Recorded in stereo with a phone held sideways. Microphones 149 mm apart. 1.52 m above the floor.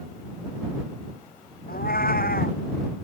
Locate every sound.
1.7 s a cat meowing: 85° left